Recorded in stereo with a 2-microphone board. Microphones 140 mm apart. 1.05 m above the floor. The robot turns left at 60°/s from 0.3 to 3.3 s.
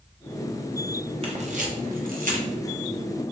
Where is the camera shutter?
40° right (ahead or behind), 0.8 m; by 2.5 s 60° right (ahead or behind), 0.8 m.